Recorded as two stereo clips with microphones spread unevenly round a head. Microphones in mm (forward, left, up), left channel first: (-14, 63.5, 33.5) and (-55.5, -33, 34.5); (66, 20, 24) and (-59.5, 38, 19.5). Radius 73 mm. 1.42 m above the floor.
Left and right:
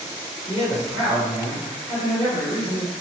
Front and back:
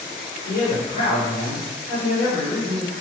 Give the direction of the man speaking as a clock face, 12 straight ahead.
12 o'clock.